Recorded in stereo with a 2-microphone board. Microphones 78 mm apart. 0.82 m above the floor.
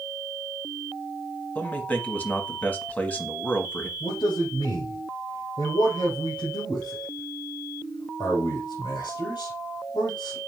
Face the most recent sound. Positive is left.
turn(degrees=75)  # may be behind; listen again after turning